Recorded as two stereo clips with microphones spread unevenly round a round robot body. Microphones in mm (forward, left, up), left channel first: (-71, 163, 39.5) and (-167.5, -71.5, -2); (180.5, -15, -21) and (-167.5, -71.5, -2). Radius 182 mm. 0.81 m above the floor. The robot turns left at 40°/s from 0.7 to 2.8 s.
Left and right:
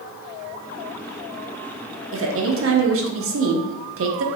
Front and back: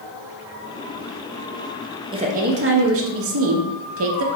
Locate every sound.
2.1 s a woman speaking: 95° right, 0.7 m; by 4.2 s 120° right, 0.7 m